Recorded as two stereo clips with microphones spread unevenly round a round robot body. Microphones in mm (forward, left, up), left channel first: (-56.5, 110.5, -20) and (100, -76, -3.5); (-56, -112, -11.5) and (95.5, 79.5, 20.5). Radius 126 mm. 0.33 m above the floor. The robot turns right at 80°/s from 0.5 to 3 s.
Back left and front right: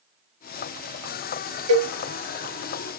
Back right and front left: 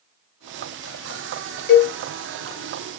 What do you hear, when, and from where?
1.7 s a cowbell: 90° right, 1.0 m; by 1.9 s 70° right, 1.0 m